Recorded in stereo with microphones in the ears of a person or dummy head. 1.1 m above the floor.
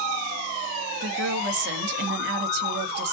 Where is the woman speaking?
55° right (ahead or behind), 2 m.